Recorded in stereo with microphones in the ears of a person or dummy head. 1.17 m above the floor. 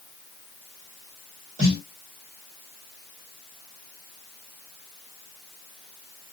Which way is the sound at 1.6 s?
40° right (ahead or behind).